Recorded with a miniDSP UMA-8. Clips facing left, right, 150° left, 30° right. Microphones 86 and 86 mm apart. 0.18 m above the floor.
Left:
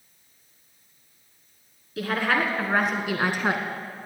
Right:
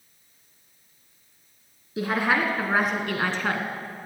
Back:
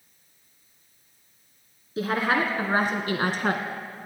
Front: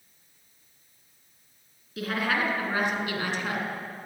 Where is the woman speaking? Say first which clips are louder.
Right 1 dB, back 4 dB; 155° right, 2 m; by 3.6 s 155° left, 1.7 m.